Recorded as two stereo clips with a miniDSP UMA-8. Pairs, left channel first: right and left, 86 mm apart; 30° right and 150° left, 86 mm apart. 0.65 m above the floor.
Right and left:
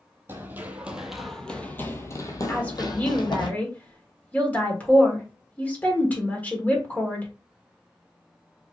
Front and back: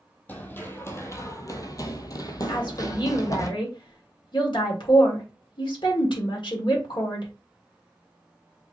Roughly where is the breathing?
I don't hear breathing.